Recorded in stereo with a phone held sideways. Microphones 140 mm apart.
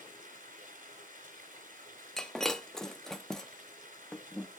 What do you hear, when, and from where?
0.0 s running water: 80° right, 3 m
2.2 s breaking glass: 5° left (ahead or behind), 0.8 m